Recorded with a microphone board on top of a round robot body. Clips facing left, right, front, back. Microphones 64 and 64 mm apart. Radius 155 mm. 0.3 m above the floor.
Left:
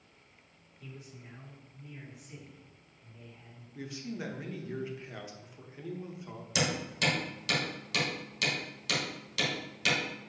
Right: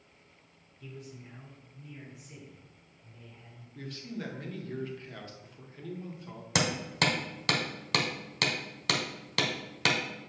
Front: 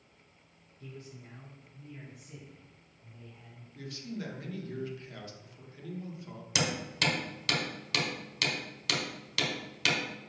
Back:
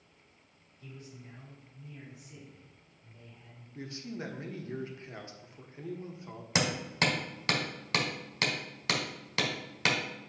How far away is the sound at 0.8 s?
About 2 m.